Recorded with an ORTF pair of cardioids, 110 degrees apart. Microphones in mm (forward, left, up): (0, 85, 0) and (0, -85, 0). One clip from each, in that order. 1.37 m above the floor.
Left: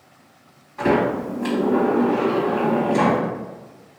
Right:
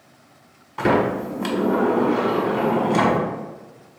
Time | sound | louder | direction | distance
0.8 | a sliding door | even | 55° right | 1.5 m